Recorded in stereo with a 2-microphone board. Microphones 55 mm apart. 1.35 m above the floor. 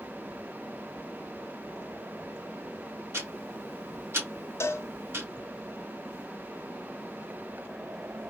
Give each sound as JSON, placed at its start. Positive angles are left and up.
{"t": 3.1, "sound": "ticking", "side_deg": -45, "distance_m": 1.7}
{"t": 4.6, "sound": "a cowbell", "side_deg": 55, "distance_m": 0.7}